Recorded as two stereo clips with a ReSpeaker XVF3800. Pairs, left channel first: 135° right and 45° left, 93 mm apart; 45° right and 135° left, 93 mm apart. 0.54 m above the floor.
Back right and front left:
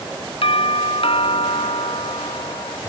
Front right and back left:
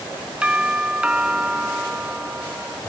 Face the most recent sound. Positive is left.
turn(degrees=-145)